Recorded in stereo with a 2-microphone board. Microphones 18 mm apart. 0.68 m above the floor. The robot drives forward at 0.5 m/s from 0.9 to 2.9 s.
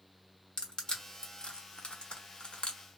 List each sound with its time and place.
0.6 s crushing: 50° left (ahead or behind), 0.9 m; by 2.8 s 60° left (ahead or behind), 0.8 m